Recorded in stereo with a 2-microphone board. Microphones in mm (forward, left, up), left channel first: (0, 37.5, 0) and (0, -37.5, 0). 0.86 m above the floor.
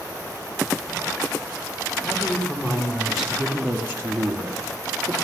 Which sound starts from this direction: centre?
A woman speaking, at 2.0 s.